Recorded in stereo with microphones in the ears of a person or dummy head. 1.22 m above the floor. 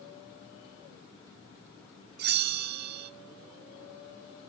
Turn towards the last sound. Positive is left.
turn(degrees=-55)  # may be behind; listen again after turning